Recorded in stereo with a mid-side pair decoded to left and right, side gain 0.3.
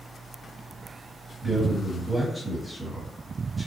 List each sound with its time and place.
1.4 s a man speaking: 15° right, 1.7 m